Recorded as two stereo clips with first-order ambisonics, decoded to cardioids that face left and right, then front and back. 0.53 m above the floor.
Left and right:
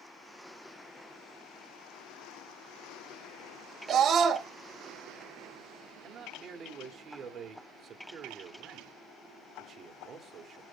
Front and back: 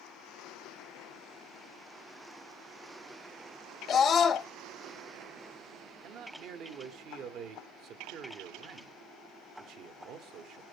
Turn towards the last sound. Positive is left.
turn(degrees=-150)